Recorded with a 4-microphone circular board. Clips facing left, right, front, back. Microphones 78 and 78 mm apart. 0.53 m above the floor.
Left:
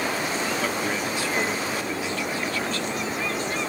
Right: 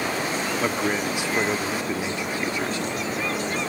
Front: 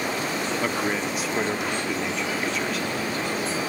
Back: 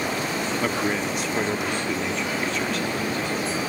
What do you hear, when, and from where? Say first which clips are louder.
0.6 s a man speaking: right 2 dB, back 2 dB; 80° right, 0.7 m